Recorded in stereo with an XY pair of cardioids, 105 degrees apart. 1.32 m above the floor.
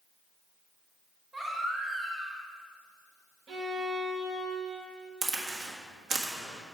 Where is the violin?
70° right, 1.8 m.